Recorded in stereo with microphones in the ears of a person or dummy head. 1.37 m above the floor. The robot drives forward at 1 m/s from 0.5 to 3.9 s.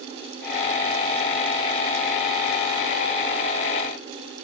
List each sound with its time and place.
Only background noise.